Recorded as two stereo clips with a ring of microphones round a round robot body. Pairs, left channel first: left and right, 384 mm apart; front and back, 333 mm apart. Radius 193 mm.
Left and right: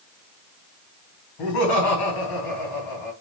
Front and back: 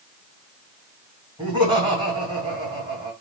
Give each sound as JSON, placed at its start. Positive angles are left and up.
{"t": 1.4, "sound": "laughter", "azimuth_deg": 105, "distance_m": 2.5}